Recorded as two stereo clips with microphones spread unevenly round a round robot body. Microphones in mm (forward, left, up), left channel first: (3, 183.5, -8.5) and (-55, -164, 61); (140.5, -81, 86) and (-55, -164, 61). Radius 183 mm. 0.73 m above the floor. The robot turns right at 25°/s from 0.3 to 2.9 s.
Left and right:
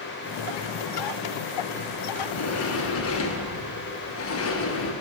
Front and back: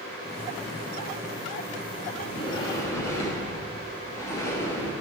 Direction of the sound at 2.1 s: 85° left.